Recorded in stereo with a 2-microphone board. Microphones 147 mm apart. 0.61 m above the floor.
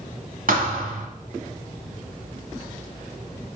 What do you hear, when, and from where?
0.5 s a thud: 70° right (ahead or behind), 1.1 m